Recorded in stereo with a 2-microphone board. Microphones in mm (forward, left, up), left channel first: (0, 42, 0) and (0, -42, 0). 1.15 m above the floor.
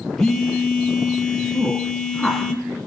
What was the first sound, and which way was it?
A phone buzzing, 5° left (ahead or behind).